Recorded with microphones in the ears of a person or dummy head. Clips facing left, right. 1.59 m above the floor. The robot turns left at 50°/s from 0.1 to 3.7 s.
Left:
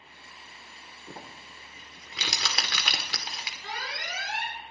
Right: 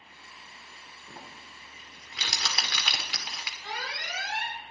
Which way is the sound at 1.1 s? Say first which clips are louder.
Left 3 dB; 30° left (ahead or behind).